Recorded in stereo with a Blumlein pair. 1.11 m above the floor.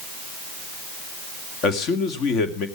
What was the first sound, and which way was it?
A man speaking, 35° left.